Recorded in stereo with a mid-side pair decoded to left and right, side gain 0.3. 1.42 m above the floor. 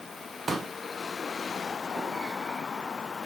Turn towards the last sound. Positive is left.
turn(degrees=-50)